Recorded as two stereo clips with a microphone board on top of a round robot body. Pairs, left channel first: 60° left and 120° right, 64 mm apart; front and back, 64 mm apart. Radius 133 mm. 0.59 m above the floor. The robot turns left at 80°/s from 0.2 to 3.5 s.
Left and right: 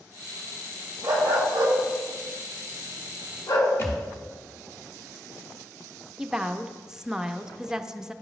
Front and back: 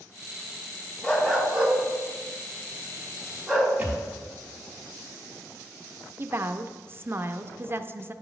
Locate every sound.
1.0 s a dog barking: 80° right, 1.3 m; by 3.7 s 85° left, 1.3 m
3.8 s a thud: 105° left, 0.9 m
6.2 s a woman speaking: 165° left, 0.6 m